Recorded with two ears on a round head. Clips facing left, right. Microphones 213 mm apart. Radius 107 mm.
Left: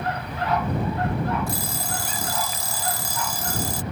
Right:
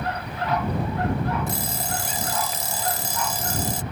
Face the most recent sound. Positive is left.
turn(degrees=-20)  # may be behind; listen again after turning